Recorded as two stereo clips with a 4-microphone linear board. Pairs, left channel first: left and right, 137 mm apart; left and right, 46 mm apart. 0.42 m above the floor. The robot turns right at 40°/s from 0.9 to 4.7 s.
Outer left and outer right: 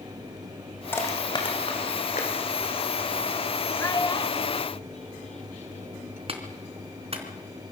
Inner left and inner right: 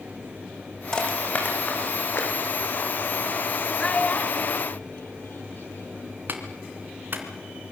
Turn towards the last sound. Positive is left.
turn(degrees=-45)  # may be behind; listen again after turning